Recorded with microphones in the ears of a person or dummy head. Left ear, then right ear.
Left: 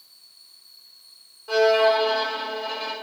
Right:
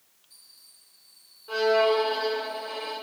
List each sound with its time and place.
1.5 s a violin: 30° left (ahead or behind), 3 m